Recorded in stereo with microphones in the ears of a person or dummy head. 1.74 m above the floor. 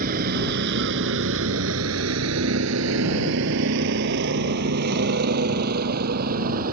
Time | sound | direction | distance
0.0 | a vehicle | 50° right (ahead or behind) | ?